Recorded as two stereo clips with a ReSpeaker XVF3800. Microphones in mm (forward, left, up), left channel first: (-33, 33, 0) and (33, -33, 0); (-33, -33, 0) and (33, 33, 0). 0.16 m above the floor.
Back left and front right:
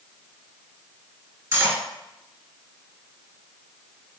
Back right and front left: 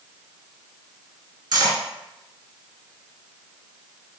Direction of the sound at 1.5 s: 5° left.